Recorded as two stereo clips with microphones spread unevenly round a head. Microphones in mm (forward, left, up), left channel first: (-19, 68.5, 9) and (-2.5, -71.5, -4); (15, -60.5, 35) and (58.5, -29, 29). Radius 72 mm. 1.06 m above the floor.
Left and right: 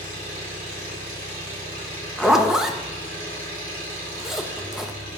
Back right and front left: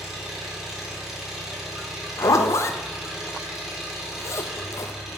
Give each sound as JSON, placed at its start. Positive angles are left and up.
{"t": 0.0, "sound": "an engine running", "azimuth_deg": -50, "distance_m": 3.5}
{"t": 2.2, "sound": "a zipper", "azimuth_deg": -165, "distance_m": 0.6}